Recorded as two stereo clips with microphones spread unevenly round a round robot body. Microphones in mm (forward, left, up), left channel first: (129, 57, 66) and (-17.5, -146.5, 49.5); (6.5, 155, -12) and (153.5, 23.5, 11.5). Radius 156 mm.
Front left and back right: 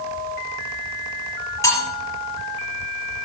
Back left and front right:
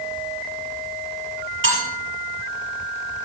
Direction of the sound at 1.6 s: 25° right.